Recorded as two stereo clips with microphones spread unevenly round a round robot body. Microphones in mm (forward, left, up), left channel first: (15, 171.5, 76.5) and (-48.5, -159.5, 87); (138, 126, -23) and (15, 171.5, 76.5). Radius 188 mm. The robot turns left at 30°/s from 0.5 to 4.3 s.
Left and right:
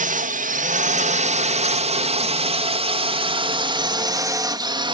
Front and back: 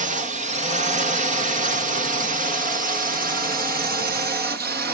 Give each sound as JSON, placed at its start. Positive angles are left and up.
{"t": 0.0, "sound": "a drone", "azimuth_deg": -135}